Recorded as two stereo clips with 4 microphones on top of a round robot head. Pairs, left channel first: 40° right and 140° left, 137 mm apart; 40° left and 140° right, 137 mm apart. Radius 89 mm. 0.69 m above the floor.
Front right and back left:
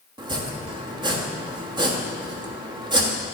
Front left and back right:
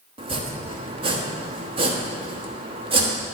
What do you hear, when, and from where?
0.2 s chopping: 175° right, 1.4 m